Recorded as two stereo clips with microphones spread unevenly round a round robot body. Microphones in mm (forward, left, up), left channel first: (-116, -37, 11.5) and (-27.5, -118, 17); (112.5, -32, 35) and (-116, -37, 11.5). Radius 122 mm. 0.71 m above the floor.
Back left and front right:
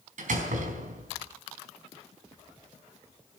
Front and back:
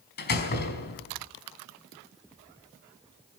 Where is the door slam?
45° right, 4.5 m.